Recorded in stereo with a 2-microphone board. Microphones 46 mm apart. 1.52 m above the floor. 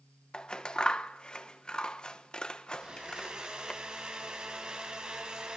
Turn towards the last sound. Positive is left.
turn(degrees=-20)  # may be behind; listen again after turning